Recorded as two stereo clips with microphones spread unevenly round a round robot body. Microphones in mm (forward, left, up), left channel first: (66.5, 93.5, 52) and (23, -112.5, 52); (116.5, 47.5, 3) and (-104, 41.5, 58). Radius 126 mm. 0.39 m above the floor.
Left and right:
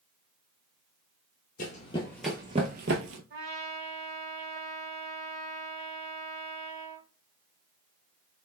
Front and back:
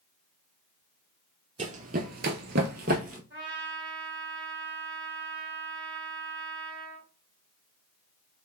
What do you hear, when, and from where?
1.6 s running footsteps: 135° left, 0.7 m; by 3.2 s 130° right, 0.7 m
3.3 s a trumpet: 130° right, 1.6 m